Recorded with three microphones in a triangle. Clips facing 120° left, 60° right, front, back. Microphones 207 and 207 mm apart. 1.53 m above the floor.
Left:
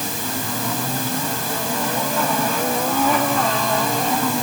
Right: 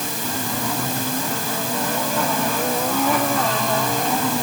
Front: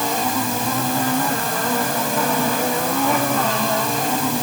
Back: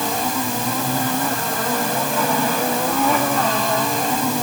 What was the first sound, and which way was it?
Only background noise.